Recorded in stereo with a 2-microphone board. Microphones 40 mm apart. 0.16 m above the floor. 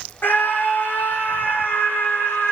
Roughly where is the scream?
Left.